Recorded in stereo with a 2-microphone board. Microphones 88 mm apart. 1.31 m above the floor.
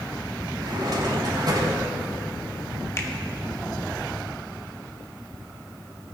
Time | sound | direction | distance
0.6 | a drawer | 50° right (ahead or behind) | 3 m
3.0 | a finger snap | 35° left (ahead or behind) | 1.3 m